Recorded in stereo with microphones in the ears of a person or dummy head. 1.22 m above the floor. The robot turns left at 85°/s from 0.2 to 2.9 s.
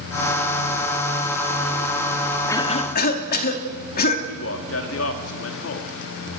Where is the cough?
165° left, 2 m; by 4.2 s 130° left, 2 m.